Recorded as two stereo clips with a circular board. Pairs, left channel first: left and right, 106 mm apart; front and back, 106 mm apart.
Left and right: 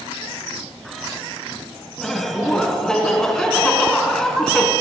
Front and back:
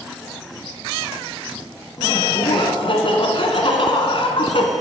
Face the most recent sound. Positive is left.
turn(degrees=5)